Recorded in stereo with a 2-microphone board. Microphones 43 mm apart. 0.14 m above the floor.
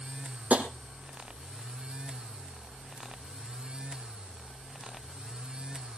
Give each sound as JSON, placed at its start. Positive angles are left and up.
{"t": 0.5, "sound": "tapping", "side_deg": -40, "distance_m": 2.0}